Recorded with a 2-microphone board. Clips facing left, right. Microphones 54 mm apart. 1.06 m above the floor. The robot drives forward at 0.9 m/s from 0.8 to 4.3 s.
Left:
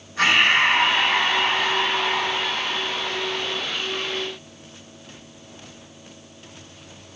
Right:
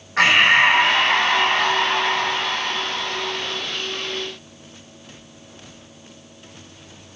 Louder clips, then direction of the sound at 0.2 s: Right 3 dB; 75° right (ahead or behind).